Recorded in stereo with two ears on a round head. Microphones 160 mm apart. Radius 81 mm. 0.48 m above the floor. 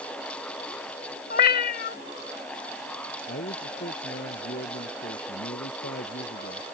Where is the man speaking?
50° left (ahead or behind).